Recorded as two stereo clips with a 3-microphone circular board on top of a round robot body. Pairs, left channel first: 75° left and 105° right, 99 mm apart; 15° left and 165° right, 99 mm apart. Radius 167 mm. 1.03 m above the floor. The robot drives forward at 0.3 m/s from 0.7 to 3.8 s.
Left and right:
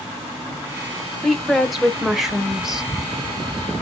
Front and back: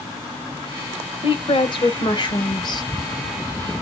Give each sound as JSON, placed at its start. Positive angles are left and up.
{"t": 1.2, "sound": "a woman speaking", "azimuth_deg": -15, "distance_m": 1.4}